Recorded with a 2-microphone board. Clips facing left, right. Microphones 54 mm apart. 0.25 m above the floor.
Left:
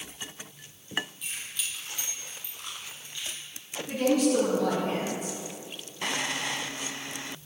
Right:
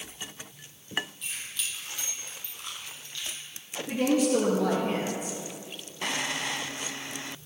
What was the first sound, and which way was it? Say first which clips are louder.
Keys jangling: even; 5° left (ahead or behind).